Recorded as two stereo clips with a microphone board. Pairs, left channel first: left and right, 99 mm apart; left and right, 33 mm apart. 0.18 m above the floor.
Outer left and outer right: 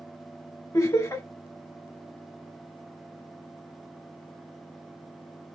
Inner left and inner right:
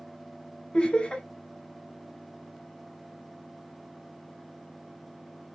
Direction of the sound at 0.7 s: 35° left (ahead or behind).